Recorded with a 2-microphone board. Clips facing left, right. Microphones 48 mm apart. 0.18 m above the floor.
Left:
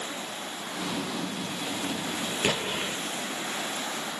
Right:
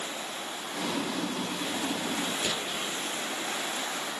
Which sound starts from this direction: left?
An explosion, at 2.4 s.